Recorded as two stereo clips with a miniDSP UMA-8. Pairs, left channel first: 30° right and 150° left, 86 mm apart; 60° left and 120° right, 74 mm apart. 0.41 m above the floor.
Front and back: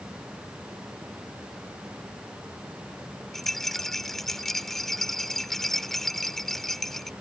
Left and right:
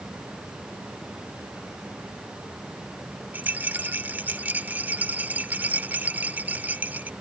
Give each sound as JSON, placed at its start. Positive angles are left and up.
{"t": 3.3, "sound": "a rattle", "azimuth_deg": -115}